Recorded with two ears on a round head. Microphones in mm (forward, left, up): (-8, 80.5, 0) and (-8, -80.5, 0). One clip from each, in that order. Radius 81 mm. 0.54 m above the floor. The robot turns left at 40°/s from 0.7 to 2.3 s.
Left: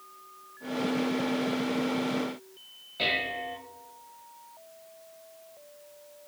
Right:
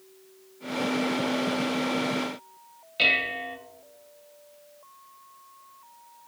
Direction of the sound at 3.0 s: 65° right (ahead or behind).